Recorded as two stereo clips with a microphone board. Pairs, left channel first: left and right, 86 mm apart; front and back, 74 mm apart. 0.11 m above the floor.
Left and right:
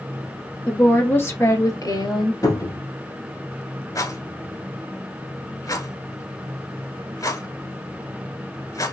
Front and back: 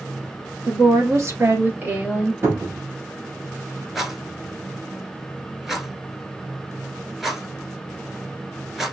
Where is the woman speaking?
165° left, 2.5 m; by 2.3 s 105° left, 2.5 m.